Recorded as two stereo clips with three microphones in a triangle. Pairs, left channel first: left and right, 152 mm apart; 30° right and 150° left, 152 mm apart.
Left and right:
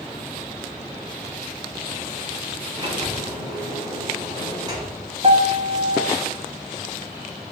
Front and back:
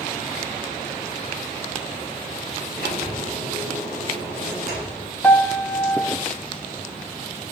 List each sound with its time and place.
2.8 s a sliding door: 25° right, 4.5 m
5.2 s a piano: 100° right, 0.8 m